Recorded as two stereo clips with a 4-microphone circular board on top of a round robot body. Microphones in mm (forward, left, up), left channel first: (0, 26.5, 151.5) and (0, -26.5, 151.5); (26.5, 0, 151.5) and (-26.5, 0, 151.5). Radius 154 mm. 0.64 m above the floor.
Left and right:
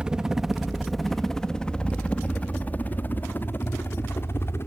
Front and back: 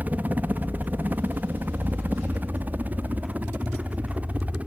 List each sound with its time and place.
0.0 s a helicopter: 155° right; by 4.7 s 120° left